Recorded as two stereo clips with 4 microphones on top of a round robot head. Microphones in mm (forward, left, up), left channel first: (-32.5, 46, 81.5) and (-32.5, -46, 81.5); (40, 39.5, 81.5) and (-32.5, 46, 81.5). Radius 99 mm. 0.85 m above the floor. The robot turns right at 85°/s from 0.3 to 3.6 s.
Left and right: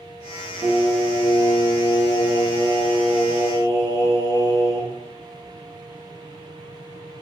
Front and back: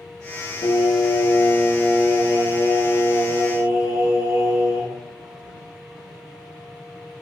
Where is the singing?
25° right, 1.9 m; by 5.0 s 135° right, 1.9 m.